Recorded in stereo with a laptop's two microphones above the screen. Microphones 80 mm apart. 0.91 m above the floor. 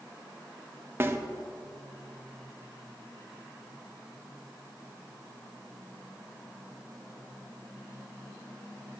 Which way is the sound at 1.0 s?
30° right (ahead or behind).